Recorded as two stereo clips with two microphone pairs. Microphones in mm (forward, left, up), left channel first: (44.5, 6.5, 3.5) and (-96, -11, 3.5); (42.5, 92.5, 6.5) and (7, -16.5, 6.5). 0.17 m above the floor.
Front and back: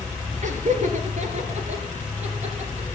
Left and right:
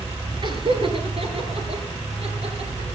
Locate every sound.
0.4 s laughter: 150° right, 4 m; by 3.0 s 135° right, 7.5 m